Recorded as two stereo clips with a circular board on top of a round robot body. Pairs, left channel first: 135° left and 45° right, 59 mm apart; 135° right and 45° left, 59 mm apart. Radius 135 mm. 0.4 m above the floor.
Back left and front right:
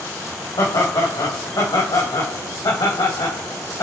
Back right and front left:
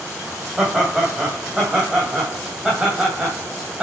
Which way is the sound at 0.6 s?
125° left.